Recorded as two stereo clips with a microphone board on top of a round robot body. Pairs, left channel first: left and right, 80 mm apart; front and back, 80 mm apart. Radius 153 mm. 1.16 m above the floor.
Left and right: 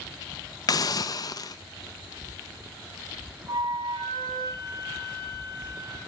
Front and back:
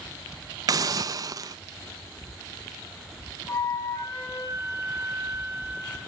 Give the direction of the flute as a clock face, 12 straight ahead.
2 o'clock.